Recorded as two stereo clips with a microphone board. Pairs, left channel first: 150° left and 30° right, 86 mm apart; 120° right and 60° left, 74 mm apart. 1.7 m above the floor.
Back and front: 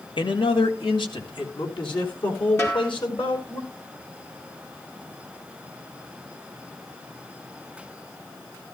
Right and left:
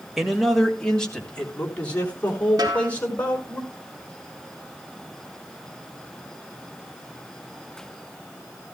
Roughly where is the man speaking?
Behind left.